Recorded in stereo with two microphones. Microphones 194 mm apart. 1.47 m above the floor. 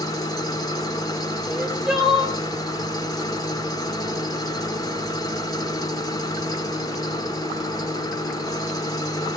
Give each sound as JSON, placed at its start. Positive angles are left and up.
{"t": 0.0, "sound": "an engine running", "side_deg": 20, "distance_m": 1.1}
{"t": 1.5, "sound": "crying", "side_deg": -5, "distance_m": 4.0}